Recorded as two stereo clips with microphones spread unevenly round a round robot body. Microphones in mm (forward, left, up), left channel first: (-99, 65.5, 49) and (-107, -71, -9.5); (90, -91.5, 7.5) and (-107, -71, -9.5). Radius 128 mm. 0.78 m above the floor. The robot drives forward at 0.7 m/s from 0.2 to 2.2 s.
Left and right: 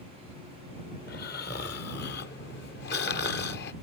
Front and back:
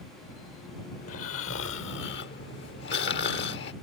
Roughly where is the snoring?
Ahead left.